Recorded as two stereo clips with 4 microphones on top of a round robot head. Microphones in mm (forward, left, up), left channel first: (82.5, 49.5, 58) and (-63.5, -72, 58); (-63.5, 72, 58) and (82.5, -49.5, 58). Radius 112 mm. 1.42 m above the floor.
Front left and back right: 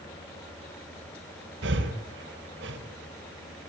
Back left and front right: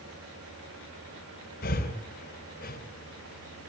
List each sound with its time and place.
1.6 s breathing: 175° right, 3 m